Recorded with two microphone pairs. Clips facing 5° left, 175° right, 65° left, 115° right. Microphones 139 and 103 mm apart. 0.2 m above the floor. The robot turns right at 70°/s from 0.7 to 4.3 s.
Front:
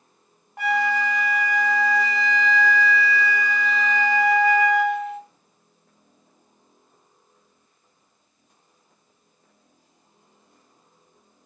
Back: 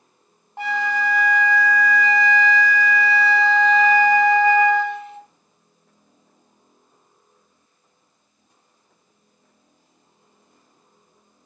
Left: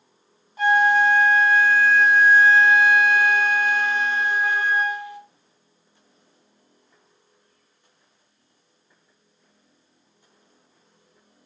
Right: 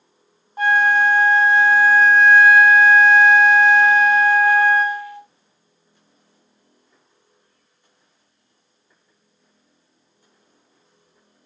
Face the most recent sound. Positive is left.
turn(degrees=130)